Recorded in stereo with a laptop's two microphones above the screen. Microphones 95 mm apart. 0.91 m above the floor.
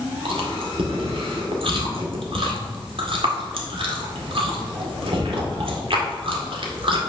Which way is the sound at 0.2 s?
70° right (ahead or behind).